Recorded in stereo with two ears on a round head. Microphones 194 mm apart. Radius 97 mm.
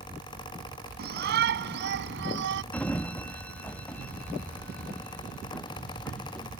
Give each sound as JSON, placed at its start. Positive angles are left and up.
{"t": 1.0, "sound": "a shout", "side_deg": -50}
{"t": 2.7, "sound": "a sliding door", "side_deg": 5}